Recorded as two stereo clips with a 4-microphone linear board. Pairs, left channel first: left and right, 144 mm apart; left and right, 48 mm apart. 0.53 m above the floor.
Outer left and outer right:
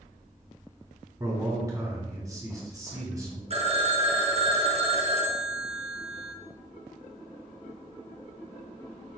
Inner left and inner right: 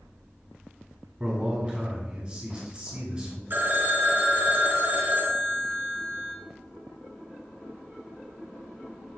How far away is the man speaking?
About 1.2 m.